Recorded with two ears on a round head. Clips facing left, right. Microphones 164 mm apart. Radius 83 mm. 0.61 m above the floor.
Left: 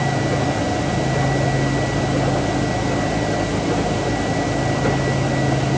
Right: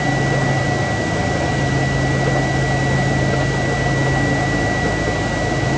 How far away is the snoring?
I don't hear snoring.